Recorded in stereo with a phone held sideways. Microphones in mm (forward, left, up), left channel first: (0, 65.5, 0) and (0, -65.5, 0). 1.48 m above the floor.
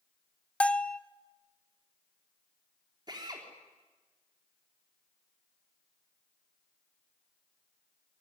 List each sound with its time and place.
0.6 s a bell: 10° left (ahead or behind), 0.6 m
3.1 s a drill: 30° right (ahead or behind), 3.5 m